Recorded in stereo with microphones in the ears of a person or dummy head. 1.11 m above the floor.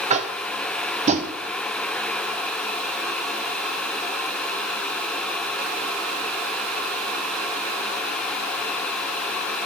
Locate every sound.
0.1 s tapping: 30° right (ahead or behind), 0.8 m